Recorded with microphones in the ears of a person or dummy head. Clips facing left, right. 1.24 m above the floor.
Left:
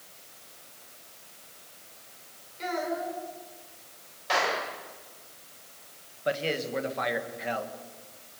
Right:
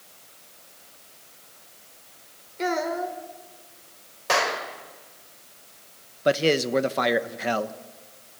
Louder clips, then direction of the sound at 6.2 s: Right 8 dB; 60° right (ahead or behind).